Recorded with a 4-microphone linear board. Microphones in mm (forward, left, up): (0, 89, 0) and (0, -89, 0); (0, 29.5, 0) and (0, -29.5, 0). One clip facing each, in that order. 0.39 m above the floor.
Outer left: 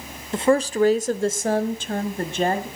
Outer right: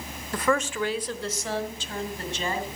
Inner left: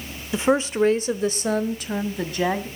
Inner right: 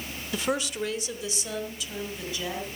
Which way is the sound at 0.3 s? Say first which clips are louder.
Outer left 7 dB, inner left 9 dB; 20° left (ahead or behind).